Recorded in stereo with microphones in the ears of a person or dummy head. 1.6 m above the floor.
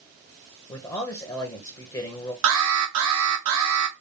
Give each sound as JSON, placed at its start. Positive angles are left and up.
{"t": 0.7, "sound": "a man speaking", "side_deg": 20, "distance_m": 0.9}
{"t": 2.4, "sound": "an alarm", "side_deg": -75, "distance_m": 1.4}